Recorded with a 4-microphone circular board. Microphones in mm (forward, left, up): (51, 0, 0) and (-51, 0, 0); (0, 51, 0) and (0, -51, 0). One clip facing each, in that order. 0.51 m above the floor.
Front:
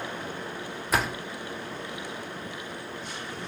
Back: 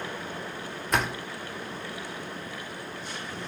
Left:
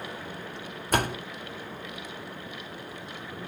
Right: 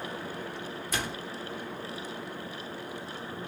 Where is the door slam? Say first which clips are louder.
Even, left 9 dB; 90° left, 0.6 m.